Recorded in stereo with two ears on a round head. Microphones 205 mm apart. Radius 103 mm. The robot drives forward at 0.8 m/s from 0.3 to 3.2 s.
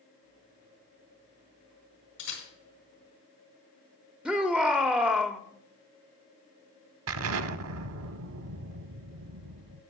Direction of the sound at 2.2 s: 55° left (ahead or behind).